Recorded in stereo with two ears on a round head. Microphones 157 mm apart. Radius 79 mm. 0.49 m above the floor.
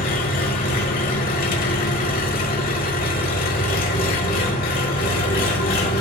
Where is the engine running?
55° left (ahead or behind), 1.2 m.